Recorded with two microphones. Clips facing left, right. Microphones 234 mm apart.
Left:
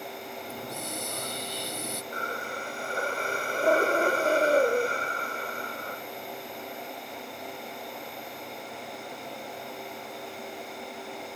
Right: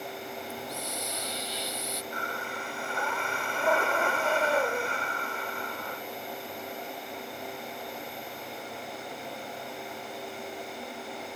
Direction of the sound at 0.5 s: 50° left (ahead or behind).